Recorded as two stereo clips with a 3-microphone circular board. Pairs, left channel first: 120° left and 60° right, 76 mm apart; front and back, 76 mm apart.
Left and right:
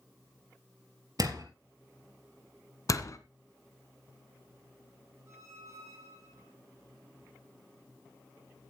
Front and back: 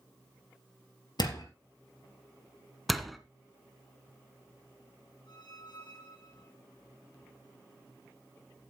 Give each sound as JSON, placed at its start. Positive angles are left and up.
{"t": 1.2, "sound": "a door slam", "azimuth_deg": -25, "distance_m": 3.0}
{"t": 2.9, "sound": "a door slam", "azimuth_deg": 90, "distance_m": 1.4}
{"t": 5.3, "sound": "a squeak", "azimuth_deg": -10, "distance_m": 7.0}